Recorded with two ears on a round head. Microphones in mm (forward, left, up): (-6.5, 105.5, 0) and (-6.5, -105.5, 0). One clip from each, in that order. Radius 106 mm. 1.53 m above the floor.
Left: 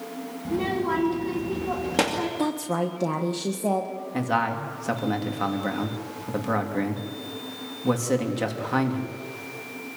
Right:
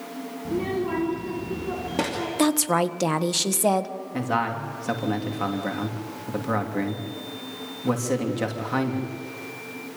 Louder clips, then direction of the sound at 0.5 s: Left 1 dB; 30° left (ahead or behind).